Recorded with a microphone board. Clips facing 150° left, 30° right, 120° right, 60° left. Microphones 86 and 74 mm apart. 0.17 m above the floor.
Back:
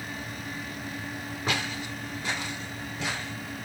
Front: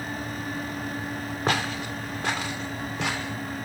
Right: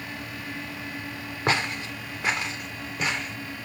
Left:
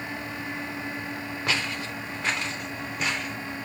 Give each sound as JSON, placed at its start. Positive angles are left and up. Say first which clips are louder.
{"t": 1.5, "sound": "footsteps", "louder": "front 5 dB, right 4 dB", "azimuth_deg": -65, "distance_m": 1.4}